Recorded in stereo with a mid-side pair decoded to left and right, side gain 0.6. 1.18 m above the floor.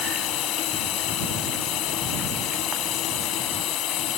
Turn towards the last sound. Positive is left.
turn(degrees=65)